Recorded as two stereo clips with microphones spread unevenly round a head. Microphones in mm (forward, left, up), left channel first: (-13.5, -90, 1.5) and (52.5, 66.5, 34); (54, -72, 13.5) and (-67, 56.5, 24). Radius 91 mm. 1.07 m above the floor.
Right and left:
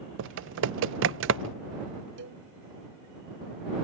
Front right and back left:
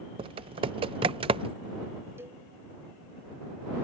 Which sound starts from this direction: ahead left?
A cowbell, at 2.2 s.